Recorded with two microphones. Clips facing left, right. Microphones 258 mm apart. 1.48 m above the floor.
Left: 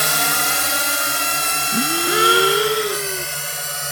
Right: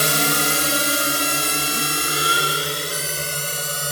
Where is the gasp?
75° left (ahead or behind).